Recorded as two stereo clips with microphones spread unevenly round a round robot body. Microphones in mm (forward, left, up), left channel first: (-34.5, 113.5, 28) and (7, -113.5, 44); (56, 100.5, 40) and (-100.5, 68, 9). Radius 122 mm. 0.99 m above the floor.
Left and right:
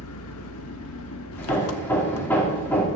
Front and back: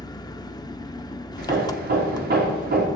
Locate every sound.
0.0 s an engine running: 70° left, 0.9 m
1.4 s hammering: straight behind, 2.5 m